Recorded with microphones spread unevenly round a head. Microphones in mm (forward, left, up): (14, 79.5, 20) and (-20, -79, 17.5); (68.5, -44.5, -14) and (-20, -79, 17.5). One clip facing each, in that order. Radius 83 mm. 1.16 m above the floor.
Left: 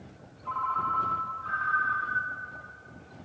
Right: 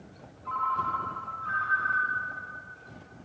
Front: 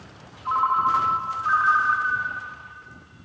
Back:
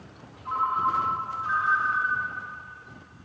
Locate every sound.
0.5 s a ringtone: 15° right, 0.6 m